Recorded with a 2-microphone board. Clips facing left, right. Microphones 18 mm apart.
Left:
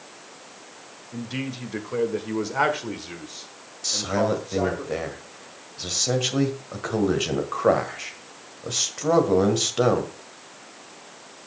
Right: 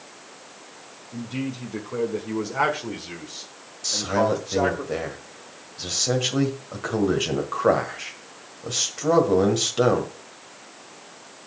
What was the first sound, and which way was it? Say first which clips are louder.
A man speaking: right 1 dB; 35° left (ahead or behind).